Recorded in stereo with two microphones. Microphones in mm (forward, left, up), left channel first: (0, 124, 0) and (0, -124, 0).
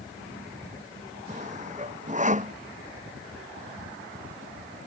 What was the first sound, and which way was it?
Sawing, 30° right (ahead or behind).